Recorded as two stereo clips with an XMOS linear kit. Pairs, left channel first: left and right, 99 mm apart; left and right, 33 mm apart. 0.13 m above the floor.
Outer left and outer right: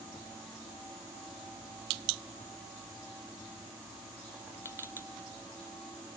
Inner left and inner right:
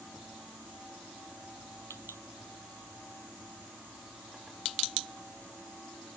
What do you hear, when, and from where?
Only background noise.